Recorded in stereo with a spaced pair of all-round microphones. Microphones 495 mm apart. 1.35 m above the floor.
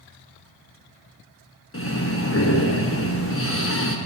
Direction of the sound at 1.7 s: 25° left (ahead or behind).